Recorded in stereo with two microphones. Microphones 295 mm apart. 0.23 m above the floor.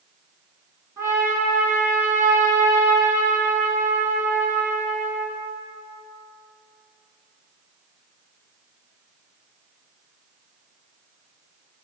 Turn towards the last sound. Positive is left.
turn(degrees=-10)  # may be behind; listen again after turning